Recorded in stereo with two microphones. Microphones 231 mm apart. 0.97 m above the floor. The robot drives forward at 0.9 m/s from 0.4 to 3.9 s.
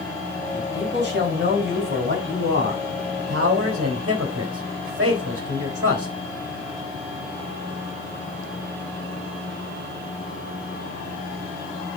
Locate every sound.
0.5 s a man speaking: 45° right (ahead or behind), 5 m; by 6.1 s 85° right, 3.5 m